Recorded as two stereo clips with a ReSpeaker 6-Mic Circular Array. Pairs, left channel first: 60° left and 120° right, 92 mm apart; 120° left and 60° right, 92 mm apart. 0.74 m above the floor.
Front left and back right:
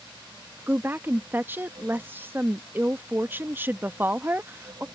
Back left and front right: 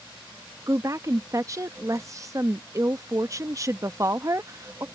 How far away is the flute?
No flute in this recording.